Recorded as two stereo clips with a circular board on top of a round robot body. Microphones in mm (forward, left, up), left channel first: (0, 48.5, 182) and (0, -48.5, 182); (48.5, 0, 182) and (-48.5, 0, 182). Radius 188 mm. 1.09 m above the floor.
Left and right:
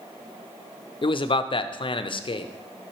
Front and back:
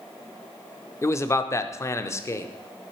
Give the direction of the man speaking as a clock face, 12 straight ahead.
10 o'clock.